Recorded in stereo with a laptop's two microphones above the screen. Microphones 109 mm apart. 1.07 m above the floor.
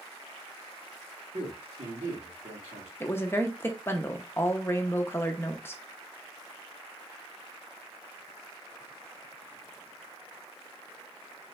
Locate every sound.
1.3 s a man speaking: 75° right (ahead or behind), 1.9 m
3.0 s a woman speaking: 20° left (ahead or behind), 0.7 m